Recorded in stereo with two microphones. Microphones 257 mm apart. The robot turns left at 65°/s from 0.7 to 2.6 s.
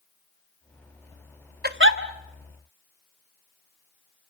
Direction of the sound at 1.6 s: 40° right (ahead or behind).